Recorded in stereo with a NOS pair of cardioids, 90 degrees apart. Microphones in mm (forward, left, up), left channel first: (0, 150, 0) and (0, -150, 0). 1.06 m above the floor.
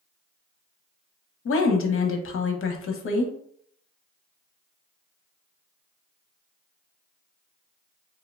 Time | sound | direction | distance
1.4 | a woman speaking | 45° left | 0.7 m